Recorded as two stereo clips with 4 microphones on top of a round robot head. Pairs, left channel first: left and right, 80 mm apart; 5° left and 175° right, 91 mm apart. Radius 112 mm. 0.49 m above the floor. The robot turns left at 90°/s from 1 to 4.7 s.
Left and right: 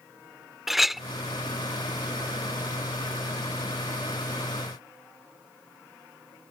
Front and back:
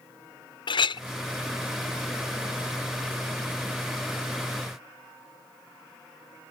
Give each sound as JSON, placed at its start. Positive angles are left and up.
{"t": 0.7, "sound": "a clink", "azimuth_deg": -5}